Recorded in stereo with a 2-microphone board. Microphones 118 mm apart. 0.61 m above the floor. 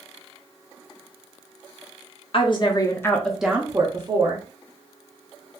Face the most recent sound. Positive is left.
turn(degrees=-50)  # may be behind; listen again after turning